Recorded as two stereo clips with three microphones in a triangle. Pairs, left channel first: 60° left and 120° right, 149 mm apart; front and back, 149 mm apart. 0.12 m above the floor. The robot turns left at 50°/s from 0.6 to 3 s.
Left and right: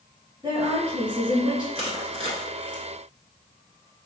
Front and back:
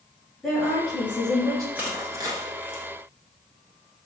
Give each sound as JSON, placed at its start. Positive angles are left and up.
{"t": 0.4, "sound": "a woman speaking", "azimuth_deg": -85, "distance_m": 2.0}
{"t": 1.8, "sound": "crushing", "azimuth_deg": -105, "distance_m": 1.0}